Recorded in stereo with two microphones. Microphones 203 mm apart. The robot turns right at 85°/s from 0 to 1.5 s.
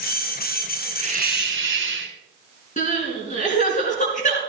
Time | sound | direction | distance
1.0 | a hiss | 145° right | 1.3 m
2.8 | crying | 40° left (ahead or behind) | 3.5 m